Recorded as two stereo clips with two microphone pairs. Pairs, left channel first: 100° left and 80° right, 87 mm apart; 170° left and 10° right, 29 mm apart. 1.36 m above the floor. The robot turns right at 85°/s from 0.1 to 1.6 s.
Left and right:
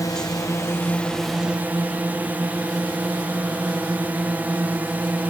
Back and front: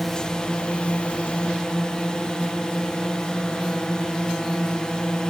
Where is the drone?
95° left; by 5.3 s 140° right.